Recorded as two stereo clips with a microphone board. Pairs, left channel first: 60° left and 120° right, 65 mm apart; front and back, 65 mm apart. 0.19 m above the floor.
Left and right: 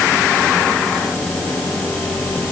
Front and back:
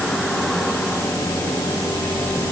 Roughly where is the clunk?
I don't hear a clunk.